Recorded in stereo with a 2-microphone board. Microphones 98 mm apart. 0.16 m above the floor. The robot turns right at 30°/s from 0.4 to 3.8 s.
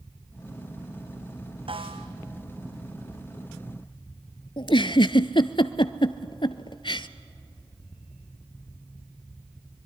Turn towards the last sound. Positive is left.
turn(degrees=55)  # may be behind; listen again after turning